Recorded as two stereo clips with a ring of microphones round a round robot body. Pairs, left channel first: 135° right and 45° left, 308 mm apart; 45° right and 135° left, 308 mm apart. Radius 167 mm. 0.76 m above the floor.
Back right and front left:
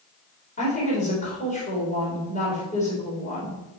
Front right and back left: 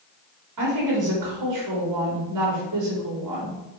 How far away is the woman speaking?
About 4 m.